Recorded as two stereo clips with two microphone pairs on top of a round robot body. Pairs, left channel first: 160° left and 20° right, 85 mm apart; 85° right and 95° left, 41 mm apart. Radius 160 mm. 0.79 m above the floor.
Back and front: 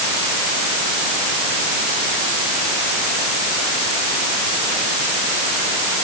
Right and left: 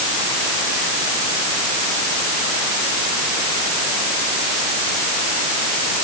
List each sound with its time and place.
Only background noise.